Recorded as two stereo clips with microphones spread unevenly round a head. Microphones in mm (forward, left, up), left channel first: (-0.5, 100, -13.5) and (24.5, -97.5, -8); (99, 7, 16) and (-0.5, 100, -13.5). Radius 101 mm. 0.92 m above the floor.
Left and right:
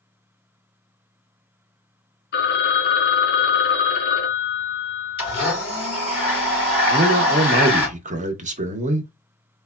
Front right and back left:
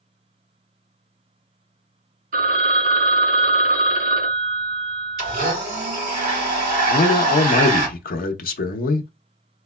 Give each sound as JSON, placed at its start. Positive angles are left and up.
{"t": 2.3, "sound": "a phone ringing", "azimuth_deg": 140, "distance_m": 0.7}
{"t": 5.2, "sound": "a blender", "azimuth_deg": 165, "distance_m": 3.0}
{"t": 6.9, "sound": "a man speaking", "azimuth_deg": -30, "distance_m": 0.8}